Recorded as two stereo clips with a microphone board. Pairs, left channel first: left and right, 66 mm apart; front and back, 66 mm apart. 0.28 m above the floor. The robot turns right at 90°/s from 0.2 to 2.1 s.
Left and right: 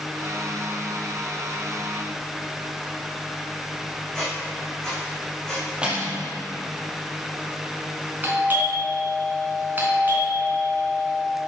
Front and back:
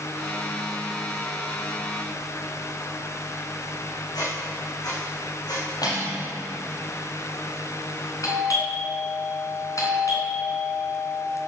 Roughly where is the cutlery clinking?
Ahead.